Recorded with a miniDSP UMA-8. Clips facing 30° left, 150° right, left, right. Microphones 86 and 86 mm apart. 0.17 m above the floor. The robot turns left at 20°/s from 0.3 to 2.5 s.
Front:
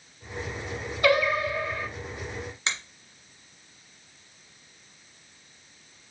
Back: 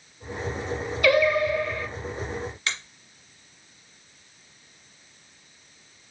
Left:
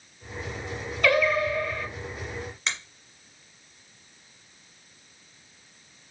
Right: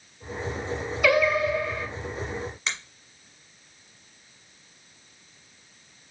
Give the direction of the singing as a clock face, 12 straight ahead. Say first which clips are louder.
Back 3 dB, right 1 dB; 12 o'clock.